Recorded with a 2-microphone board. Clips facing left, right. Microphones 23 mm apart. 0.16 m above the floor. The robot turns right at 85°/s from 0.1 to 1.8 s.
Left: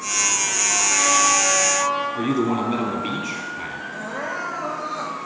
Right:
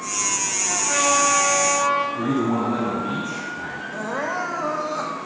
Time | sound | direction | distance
0.7 | a trumpet | 175° right | 4.5 m
2.1 | a man speaking | 45° left (ahead or behind) | 3.5 m
3.9 | crying | 30° right (ahead or behind) | 1.7 m